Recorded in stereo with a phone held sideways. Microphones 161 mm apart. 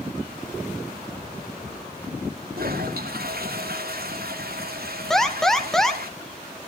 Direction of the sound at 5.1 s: 5° left (ahead or behind).